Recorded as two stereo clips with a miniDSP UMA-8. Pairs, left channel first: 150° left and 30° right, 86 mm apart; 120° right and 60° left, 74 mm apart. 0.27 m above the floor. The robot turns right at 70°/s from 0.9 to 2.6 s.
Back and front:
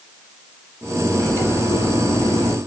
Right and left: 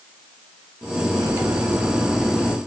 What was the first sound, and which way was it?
Cutlery clinking, 75° left.